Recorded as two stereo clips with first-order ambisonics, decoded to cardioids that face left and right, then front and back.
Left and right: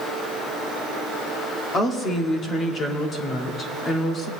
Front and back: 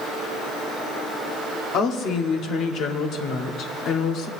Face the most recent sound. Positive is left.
turn(degrees=30)